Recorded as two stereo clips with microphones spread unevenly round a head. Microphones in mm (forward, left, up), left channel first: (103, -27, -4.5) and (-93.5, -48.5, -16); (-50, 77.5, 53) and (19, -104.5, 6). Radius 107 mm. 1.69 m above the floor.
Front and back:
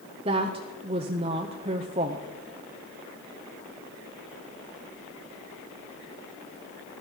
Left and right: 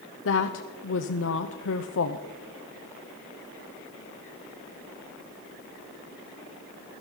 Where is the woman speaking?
120° left, 0.6 m.